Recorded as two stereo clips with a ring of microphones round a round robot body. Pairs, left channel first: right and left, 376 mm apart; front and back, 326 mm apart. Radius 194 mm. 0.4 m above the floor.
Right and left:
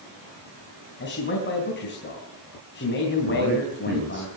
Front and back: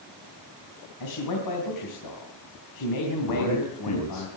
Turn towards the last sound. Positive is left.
turn(degrees=30)